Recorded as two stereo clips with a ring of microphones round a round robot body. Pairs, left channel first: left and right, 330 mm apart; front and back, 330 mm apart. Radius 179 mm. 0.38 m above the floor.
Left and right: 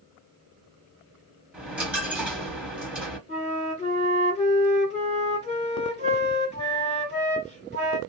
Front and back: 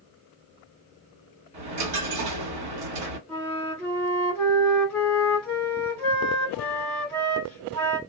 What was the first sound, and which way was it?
A dropped coin, 175° right.